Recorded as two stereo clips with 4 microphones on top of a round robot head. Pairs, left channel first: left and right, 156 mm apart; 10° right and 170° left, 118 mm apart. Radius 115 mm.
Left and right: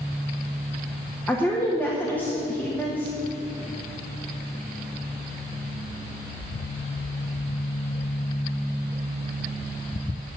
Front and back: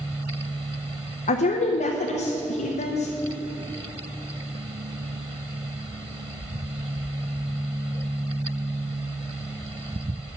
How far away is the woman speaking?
About 0.9 m.